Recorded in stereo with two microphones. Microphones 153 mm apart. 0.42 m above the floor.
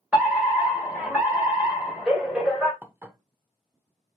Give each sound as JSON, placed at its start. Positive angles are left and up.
{"t": 0.1, "sound": "a fire alarm", "side_deg": -10, "distance_m": 2.5}
{"t": 2.8, "sound": "dishes clattering", "side_deg": -15, "distance_m": 0.6}